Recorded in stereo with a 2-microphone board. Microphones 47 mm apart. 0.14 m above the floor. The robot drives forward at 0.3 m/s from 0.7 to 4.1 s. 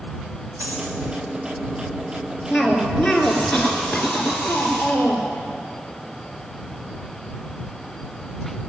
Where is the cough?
5° left (ahead or behind), 2.5 m.